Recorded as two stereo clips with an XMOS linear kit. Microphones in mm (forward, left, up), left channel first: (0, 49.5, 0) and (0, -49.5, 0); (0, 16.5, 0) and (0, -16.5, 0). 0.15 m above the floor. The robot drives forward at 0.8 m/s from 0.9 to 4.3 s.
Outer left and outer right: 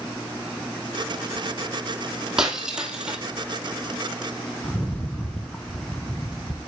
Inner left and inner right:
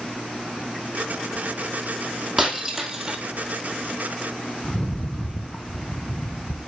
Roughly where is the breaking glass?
Centre.